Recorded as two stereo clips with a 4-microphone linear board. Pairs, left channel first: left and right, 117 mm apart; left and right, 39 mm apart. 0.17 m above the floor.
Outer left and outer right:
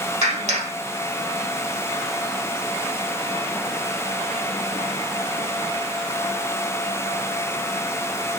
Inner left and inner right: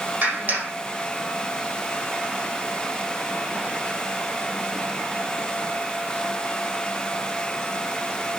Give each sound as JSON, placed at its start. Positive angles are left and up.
{"t": 0.2, "sound": "a clap", "side_deg": -55, "distance_m": 5.5}